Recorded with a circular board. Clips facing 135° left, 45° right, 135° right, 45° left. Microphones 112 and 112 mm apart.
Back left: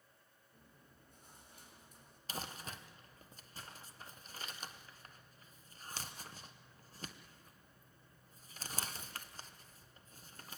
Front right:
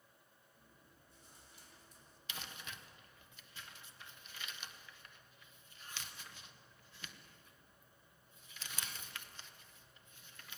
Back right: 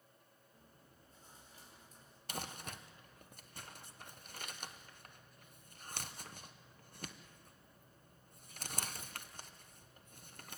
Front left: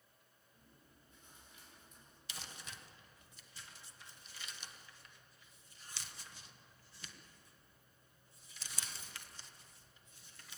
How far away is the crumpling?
About 1.0 m.